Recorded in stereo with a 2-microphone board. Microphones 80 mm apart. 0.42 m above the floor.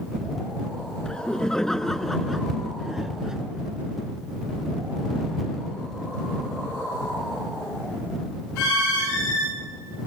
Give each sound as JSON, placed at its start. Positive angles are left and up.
{"t": 1.1, "sound": "laughter", "side_deg": 10}